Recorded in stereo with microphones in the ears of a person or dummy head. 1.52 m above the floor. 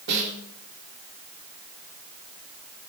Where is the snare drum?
55° right (ahead or behind), 4 m.